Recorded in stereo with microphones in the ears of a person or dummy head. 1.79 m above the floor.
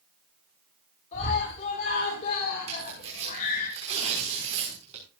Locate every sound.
1.1 s a scream: 40° left (ahead or behind), 6 m; by 3.7 s 50° left (ahead or behind), 7.5 m
2.7 s tearing paper: 30° right (ahead or behind), 6 m